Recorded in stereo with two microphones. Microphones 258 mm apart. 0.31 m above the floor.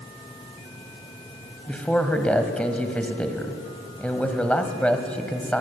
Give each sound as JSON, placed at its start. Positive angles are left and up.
{"t": 1.7, "sound": "a man speaking", "side_deg": 5, "distance_m": 1.7}